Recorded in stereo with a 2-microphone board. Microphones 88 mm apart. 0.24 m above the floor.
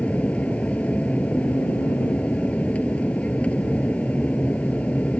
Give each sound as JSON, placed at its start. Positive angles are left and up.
{"t": 0.0, "sound": "an aircraft", "side_deg": 15}